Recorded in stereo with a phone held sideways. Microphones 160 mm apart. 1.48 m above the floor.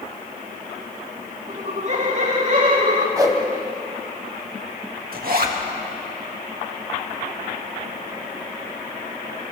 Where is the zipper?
65° right (ahead or behind), 2 m.